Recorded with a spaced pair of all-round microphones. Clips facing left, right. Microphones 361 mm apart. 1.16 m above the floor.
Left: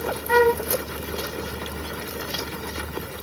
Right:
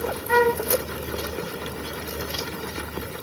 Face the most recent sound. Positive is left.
turn(degrees=50)  # may be behind; listen again after turning